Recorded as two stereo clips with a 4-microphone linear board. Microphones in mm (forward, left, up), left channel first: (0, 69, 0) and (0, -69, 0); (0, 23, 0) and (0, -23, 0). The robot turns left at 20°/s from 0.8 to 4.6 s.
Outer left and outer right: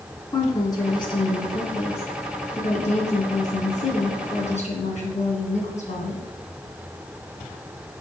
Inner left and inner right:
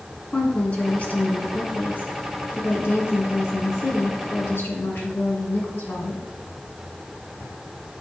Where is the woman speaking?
145° left, 3 m; by 6.2 s 70° left, 3 m.